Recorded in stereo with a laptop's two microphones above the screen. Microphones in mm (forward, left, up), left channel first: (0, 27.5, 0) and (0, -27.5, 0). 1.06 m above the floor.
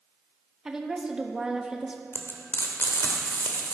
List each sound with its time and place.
0.7 s a woman speaking: 10° right (ahead or behind), 1.0 m
2.1 s frying: 50° left (ahead or behind), 1.0 m